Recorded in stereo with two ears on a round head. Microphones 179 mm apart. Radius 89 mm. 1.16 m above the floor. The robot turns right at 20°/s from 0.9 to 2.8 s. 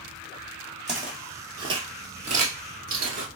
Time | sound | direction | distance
0.9 | footsteps | 5° right (ahead or behind) | 1.9 m